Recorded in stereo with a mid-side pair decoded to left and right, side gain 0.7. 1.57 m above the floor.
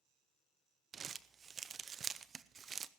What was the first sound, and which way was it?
Crumpling, 30° right.